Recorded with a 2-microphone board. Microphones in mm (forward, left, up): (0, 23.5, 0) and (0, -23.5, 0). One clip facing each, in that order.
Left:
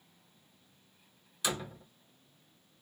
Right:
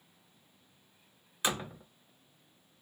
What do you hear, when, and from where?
1.4 s a door slam: 30° right (ahead or behind), 0.6 m